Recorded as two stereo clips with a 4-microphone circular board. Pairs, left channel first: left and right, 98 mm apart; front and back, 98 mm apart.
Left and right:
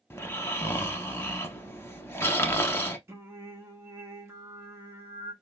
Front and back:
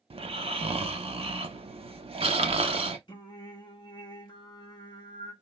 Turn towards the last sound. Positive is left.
turn(degrees=-35)